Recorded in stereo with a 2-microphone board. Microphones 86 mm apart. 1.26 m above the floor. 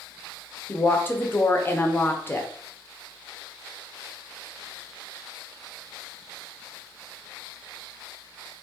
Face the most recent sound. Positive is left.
turn(degrees=25)  # may be behind; listen again after turning